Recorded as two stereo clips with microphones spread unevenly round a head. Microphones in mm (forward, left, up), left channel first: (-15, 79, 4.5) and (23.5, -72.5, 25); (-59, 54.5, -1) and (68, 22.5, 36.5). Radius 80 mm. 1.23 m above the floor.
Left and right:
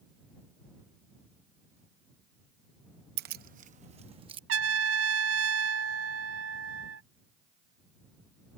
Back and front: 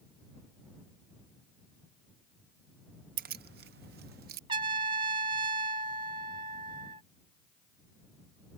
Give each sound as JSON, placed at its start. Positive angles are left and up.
{"t": 3.2, "sound": "keys jangling", "azimuth_deg": -50}
{"t": 4.5, "sound": "a trumpet", "azimuth_deg": -75}